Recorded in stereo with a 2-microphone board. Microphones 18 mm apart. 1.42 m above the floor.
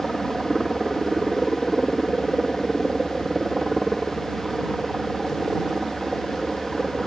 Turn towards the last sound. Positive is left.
turn(degrees=-10)  # may be behind; listen again after turning